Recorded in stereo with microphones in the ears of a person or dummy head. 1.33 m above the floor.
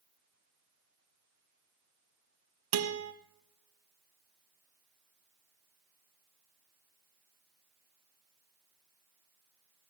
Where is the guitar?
85° right, 1.2 m.